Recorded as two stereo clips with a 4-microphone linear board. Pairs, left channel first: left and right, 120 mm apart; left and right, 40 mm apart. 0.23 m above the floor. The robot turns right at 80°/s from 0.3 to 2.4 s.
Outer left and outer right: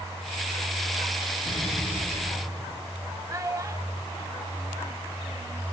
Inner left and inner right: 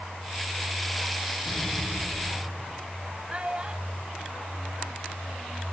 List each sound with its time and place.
1.4 s an explosion: 135° left, 5.5 m; by 2.8 s 145° right, 5.5 m
3.3 s a child speaking: 30° right (ahead or behind), 0.6 m